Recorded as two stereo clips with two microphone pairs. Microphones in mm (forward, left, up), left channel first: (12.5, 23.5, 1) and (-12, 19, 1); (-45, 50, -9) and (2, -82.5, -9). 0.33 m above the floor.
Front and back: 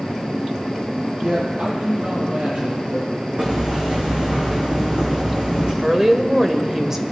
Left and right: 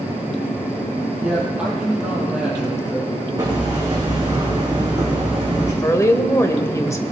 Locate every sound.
1.2 s a man speaking: 155° right, 7.5 m
3.4 s hammering: 130° right, 5 m
5.8 s a woman speaking: 140° left, 1.2 m